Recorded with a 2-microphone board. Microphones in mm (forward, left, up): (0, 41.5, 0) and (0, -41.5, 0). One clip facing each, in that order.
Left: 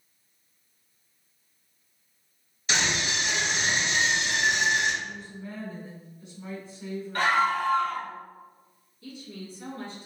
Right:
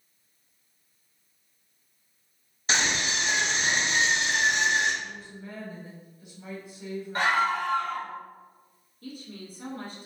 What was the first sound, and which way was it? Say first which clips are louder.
A scream: right 1 dB; 40° right (ahead or behind).